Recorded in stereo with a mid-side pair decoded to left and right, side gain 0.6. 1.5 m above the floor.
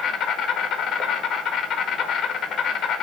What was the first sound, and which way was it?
An insect, 40° left.